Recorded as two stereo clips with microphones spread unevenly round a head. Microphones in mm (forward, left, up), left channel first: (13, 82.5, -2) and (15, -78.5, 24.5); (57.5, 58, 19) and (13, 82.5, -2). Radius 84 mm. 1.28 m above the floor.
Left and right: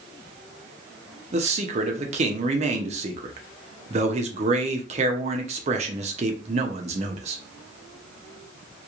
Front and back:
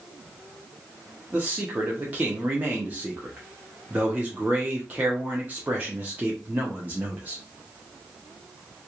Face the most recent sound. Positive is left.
turn(degrees=-145)